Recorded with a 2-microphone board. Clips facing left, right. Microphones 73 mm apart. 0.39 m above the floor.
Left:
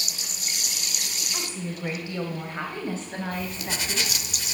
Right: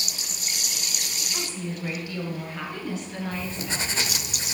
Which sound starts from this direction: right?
Writing, at 3.3 s.